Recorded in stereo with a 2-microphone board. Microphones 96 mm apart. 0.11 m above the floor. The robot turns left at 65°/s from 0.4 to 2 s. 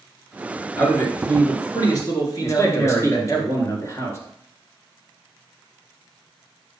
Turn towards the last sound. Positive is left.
turn(degrees=30)  # may be behind; listen again after turning